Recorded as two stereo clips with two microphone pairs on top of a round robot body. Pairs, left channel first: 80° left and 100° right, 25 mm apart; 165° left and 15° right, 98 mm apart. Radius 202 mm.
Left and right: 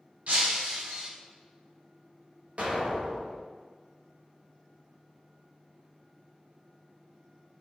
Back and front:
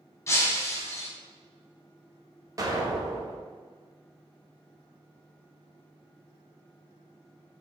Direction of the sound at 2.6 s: 65° right.